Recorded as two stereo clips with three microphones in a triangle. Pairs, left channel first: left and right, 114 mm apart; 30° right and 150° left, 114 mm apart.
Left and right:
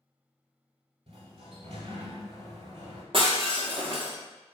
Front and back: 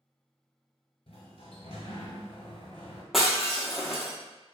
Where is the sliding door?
70° right, 1.2 m.